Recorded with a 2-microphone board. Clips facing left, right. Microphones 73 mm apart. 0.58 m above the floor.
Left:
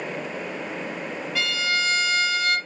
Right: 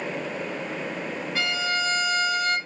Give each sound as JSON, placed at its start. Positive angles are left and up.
{"t": 1.4, "sound": "a violin", "side_deg": -25, "distance_m": 1.8}